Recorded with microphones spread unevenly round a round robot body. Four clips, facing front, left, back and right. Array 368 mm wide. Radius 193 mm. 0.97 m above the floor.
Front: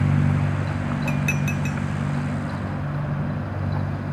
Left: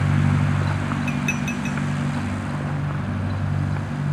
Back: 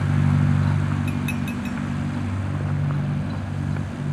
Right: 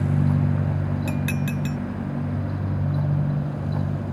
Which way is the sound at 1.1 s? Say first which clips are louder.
Left 1 dB, front 1 dB; 85° right.